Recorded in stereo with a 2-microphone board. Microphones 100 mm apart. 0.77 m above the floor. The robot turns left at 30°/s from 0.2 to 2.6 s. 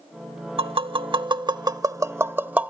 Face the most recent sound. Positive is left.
turn(degrees=-15)  # may be behind; listen again after turning